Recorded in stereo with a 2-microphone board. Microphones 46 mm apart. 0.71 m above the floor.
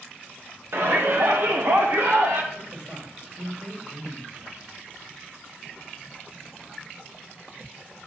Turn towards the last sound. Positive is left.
turn(degrees=-65)  # may be behind; listen again after turning